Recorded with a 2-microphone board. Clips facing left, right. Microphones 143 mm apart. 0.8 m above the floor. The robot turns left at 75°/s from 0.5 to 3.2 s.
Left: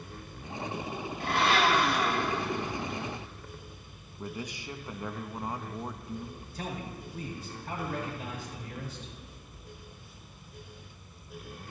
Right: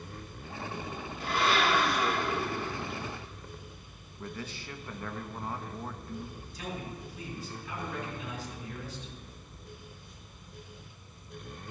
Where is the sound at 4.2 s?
15° left (ahead or behind), 0.6 m.